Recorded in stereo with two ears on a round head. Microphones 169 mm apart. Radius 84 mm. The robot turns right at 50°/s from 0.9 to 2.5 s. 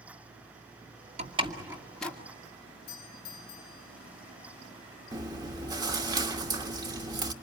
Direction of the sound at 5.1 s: 20° right (ahead or behind).